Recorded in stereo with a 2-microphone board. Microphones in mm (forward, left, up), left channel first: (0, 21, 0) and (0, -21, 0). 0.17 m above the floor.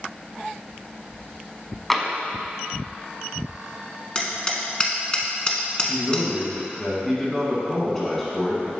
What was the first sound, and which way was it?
Tapping, 5° left (ahead or behind).